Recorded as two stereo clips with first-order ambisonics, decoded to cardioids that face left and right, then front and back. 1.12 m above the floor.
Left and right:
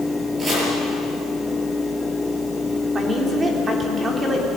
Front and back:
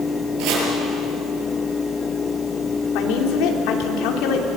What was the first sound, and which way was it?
Chopping, 160° right.